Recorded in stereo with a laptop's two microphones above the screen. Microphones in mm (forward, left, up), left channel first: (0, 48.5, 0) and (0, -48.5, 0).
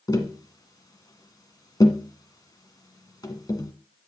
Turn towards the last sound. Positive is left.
turn(degrees=40)  # may be behind; listen again after turning